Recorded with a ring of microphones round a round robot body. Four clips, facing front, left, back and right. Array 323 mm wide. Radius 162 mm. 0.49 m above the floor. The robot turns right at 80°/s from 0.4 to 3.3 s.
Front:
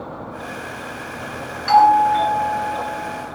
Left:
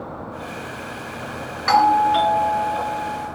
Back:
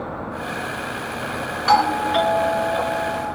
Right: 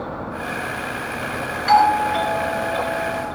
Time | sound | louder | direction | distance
1.7 | a doorbell | even, front 6 dB | 135° left | 4 m